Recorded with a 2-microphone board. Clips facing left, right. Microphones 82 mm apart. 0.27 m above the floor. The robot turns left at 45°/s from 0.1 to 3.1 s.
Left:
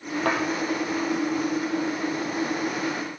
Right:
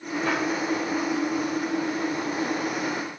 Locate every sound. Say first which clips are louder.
0.2 s a thud: left 2 dB; 70° left (ahead or behind), 4 m; by 0.4 s 60° left (ahead or behind), 4 m